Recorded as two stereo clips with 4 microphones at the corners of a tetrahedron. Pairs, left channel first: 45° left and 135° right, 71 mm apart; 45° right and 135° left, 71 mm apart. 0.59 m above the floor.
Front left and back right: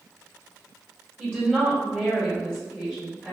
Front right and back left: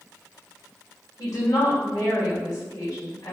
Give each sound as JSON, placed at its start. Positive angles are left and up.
{"t": 1.2, "sound": "a woman speaking", "azimuth_deg": -50, "distance_m": 1.9}